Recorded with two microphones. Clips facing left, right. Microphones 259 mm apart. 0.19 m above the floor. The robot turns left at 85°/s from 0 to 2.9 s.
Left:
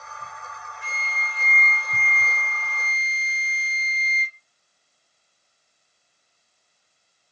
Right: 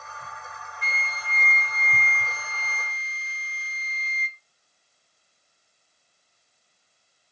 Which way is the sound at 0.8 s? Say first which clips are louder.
Even; 60° left.